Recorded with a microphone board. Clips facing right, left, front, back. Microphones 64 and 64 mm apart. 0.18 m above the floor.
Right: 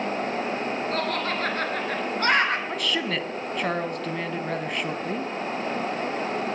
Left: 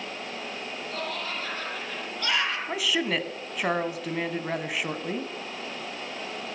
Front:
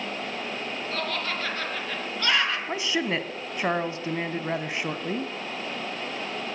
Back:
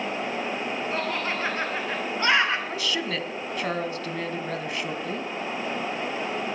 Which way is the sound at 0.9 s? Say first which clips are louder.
Right 4 dB, even; 110° right.